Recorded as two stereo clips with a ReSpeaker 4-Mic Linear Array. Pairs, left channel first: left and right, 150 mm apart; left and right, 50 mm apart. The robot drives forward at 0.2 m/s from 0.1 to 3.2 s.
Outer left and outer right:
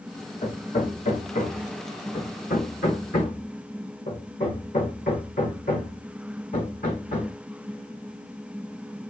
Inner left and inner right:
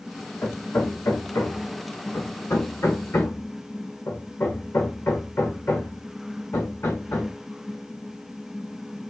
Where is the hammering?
55° left (ahead or behind), 1.7 m; by 7.3 s 75° left (ahead or behind), 1.5 m.